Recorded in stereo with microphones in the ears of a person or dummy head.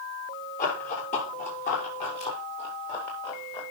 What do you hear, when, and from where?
0.6 s running footsteps: 45° left (ahead or behind), 6 m; by 3.6 s 25° left (ahead or behind), 3.5 m